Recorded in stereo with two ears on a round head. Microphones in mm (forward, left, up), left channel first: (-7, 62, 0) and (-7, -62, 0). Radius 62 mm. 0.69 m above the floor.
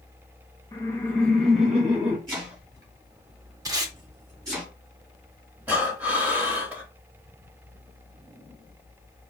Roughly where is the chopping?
Right.